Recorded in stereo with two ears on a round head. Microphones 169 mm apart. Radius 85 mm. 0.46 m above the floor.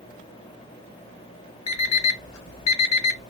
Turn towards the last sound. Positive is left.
turn(degrees=85)